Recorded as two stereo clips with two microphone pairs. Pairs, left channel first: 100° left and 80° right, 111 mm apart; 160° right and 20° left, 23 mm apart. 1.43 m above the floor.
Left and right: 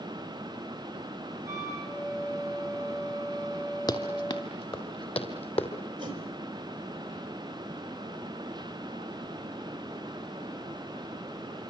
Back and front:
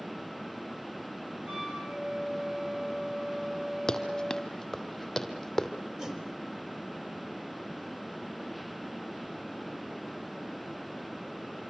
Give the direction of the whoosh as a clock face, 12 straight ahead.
1 o'clock.